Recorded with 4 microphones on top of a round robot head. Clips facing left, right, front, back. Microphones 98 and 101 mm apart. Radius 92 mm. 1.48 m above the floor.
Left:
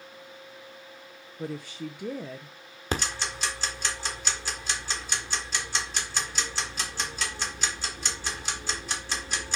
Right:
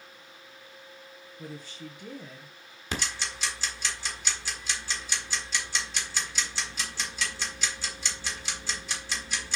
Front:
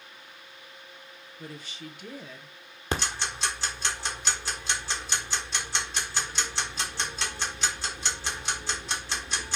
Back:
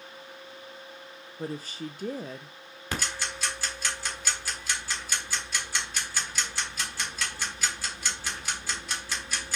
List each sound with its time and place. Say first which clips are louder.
1.4 s a woman speaking: left 7 dB, back 7 dB; 140° left, 0.5 m
2.9 s ticking: left 4 dB, front 3 dB; 55° left, 1.4 m